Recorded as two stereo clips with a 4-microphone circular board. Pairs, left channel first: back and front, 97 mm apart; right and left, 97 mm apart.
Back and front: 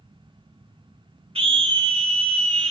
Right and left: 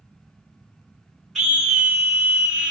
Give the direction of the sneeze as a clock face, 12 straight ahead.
No sneeze in this recording.